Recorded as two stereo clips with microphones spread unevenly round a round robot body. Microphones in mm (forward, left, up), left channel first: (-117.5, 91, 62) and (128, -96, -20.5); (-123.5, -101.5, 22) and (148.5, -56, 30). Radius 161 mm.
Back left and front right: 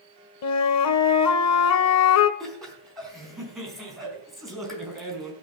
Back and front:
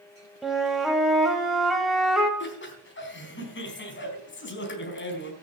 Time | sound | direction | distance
0.4 | a flute | 100° left | 1.0 m
2.4 | laughter | 125° right | 4 m